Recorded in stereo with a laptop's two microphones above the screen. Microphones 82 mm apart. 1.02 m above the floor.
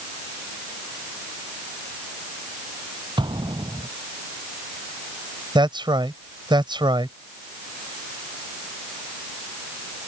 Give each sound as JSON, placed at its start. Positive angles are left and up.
{"t": 3.2, "sound": "an explosion", "side_deg": -90}
{"t": 5.5, "sound": "a man speaking", "side_deg": -85}